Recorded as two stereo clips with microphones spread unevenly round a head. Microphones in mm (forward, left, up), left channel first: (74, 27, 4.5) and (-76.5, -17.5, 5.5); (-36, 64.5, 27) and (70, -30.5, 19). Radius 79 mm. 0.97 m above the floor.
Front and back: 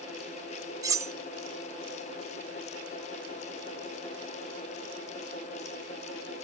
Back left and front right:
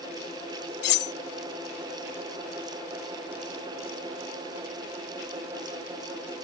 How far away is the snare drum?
I don't hear a snare drum.